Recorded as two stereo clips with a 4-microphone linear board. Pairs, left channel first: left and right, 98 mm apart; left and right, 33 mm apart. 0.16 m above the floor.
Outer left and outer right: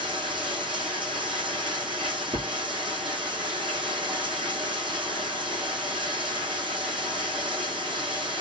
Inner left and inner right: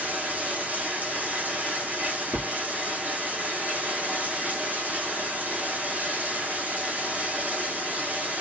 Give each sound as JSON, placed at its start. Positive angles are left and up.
{"t": 0.0, "sound": "running water", "side_deg": -55, "distance_m": 2.0}